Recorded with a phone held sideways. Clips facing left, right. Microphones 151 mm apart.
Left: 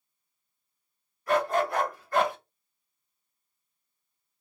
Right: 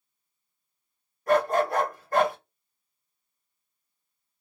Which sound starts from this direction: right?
A dog barking, at 1.3 s.